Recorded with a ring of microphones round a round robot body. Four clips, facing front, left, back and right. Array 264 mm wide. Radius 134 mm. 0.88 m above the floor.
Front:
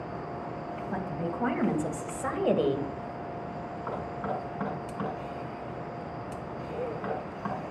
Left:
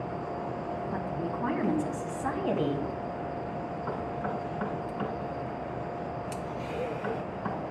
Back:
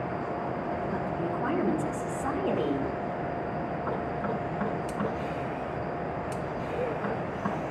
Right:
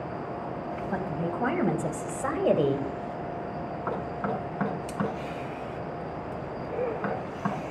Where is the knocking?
90° right, 6.5 m.